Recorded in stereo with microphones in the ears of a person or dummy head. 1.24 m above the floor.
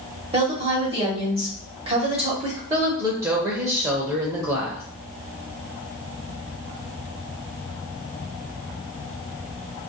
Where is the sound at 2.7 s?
20° right (ahead or behind), 0.7 m.